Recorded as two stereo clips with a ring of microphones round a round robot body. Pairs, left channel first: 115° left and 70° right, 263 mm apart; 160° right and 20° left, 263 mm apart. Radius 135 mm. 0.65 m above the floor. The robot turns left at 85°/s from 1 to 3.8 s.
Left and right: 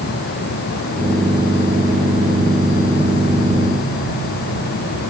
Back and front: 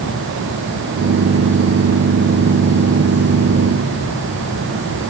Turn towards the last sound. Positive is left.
No sound to turn to.